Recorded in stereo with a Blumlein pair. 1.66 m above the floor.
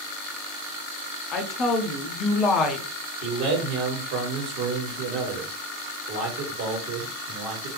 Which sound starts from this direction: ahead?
A woman speaking, at 1.3 s.